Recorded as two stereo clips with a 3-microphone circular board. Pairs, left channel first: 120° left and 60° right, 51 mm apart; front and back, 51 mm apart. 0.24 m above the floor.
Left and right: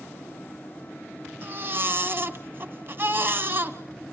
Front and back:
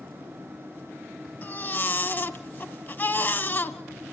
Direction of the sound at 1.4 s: 35° right.